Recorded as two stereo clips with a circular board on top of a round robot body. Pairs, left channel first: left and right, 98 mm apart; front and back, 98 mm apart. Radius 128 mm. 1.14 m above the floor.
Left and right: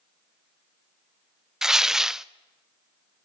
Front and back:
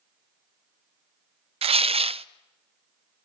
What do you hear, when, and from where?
1.6 s tearing paper: 175° right, 0.6 m